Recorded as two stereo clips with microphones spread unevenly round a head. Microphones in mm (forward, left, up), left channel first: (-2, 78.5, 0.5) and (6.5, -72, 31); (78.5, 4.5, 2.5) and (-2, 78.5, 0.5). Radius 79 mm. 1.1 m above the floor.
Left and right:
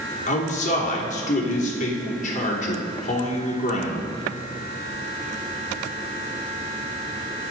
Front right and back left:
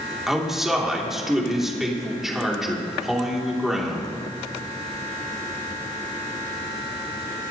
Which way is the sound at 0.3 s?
50° left.